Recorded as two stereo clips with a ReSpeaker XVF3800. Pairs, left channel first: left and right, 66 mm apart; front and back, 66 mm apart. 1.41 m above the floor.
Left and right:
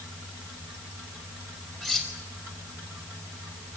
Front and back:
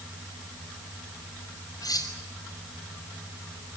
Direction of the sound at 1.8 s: 10° left.